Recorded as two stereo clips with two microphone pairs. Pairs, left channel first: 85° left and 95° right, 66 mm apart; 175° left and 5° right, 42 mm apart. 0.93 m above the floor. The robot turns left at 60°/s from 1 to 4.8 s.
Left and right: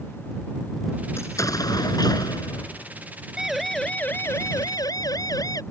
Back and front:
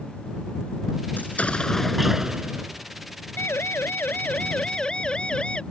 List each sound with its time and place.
1.2 s an explosion: 135° left; by 2.9 s 35° left
3.4 s a siren: 175° right; by 5.6 s 110° left